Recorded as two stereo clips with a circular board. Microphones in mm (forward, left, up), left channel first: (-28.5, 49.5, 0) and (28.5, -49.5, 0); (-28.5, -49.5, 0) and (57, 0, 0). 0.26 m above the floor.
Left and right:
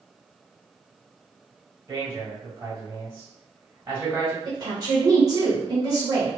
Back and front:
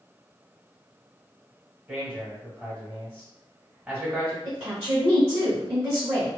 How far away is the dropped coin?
No dropped coin in this recording.